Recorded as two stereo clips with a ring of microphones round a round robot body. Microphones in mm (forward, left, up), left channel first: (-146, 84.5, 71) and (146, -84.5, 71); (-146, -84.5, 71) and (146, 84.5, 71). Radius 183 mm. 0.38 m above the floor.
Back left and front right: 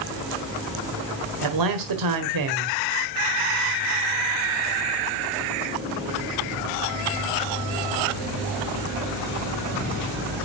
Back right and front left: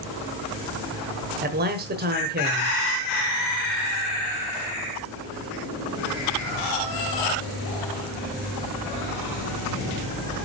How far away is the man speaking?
About 1.6 m.